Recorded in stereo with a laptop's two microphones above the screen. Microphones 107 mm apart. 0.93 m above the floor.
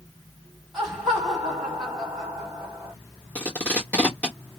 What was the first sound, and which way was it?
Laughter, 5° right (ahead or behind).